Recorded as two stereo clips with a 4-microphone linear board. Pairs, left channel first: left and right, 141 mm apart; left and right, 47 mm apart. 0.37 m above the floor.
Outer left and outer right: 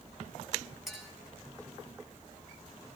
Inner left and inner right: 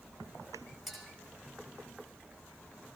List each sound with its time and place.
0.9 s a clink: 5° right (ahead or behind), 3 m